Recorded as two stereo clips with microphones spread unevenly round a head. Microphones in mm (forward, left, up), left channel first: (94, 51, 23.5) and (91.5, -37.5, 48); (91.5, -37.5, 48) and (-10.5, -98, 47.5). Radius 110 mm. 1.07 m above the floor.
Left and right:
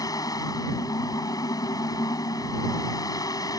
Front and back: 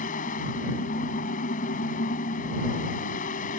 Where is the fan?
40° left.